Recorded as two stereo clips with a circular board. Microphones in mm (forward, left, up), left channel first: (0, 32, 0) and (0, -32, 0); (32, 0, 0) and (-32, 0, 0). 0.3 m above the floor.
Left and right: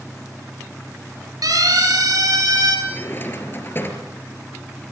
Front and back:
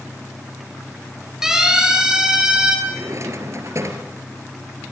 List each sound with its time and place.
1.4 s a siren: 95° right, 8 m; by 2.8 s 105° right, 6.5 m
2.9 s a drawer: 145° left, 3 m